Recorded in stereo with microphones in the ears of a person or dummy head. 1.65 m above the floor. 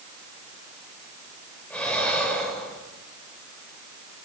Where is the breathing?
5° left (ahead or behind), 6.5 m.